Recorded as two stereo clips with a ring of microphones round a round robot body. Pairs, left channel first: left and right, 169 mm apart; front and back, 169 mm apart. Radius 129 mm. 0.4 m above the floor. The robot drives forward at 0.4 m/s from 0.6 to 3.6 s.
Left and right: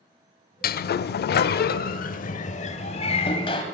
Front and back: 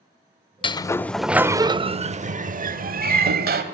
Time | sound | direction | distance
0.6 | a sliding door | 60° left | 0.5 m